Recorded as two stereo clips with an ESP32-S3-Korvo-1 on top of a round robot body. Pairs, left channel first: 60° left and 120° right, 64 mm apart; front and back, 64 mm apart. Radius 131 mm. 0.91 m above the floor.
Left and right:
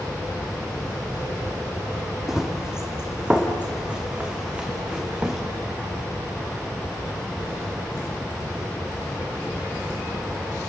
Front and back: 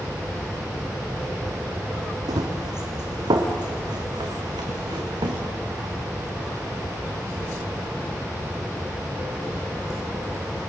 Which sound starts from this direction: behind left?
Running footsteps, at 2.3 s.